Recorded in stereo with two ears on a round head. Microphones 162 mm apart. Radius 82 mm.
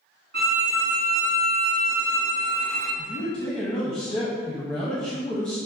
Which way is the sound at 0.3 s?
65° right (ahead or behind).